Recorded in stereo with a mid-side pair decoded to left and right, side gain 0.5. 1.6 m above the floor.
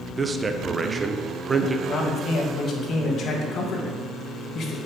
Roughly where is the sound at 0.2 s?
Ahead right.